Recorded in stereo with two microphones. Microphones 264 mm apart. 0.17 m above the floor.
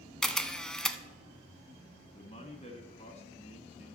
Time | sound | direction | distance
0.2 | a camera shutter | 5° left (ahead or behind) | 0.6 m
2.1 | a man speaking | 25° left (ahead or behind) | 1.3 m